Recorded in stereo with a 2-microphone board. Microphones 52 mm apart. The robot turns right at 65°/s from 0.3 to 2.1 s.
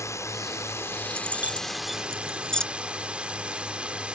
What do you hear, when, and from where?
0.0 s a drone: 85° left; by 4.2 s 160° right
1.1 s keys jangling: 50° right (ahead or behind); by 2.6 s 15° left (ahead or behind)